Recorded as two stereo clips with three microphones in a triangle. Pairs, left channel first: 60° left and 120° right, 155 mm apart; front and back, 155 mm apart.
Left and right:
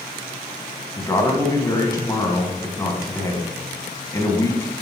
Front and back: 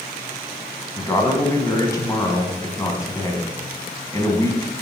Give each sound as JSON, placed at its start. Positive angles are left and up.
{"t": 1.0, "sound": "a man speaking", "azimuth_deg": 30, "distance_m": 1.4}